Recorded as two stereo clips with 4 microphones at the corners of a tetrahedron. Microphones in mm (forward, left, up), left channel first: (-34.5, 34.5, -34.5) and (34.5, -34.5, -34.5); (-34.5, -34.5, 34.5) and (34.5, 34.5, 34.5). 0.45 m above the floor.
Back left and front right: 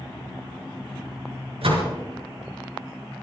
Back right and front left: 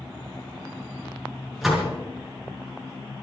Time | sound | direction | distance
1.6 | a door slam | 45° right | 4.5 m